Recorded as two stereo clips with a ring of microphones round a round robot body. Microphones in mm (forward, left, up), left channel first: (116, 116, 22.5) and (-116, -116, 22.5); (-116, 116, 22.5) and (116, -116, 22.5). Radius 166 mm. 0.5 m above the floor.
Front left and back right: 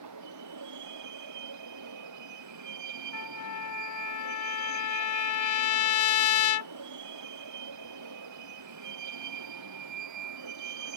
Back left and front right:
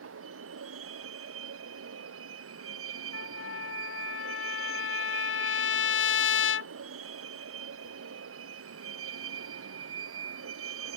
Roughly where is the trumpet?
Left.